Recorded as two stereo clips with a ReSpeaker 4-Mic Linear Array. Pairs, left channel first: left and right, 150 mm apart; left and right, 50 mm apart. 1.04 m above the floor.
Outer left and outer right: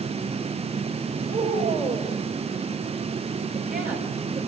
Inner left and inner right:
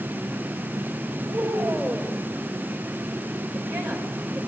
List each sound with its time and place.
1.3 s a woman speaking: 80° right, 5 m